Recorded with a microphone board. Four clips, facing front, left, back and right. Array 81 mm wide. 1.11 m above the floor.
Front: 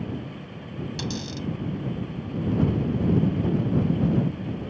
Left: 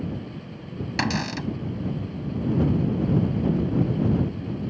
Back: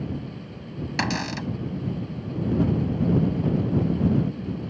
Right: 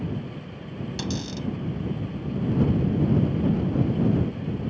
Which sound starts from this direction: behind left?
A cupboard door, at 1.0 s.